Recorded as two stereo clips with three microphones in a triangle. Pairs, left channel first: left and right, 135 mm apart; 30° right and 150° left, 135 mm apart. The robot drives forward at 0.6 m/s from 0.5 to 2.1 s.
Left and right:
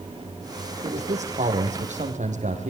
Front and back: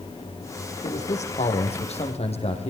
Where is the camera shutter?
I don't hear a camera shutter.